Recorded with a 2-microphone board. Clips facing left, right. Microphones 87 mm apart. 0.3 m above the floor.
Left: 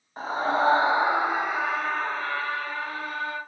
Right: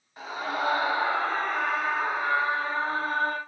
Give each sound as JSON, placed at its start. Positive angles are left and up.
{"t": 0.2, "sound": "a scream", "side_deg": 35, "distance_m": 1.6}